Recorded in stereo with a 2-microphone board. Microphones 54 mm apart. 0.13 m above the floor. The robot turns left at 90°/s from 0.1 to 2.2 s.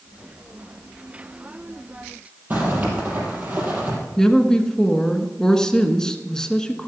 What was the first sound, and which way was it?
A zipper, 35° right (ahead or behind).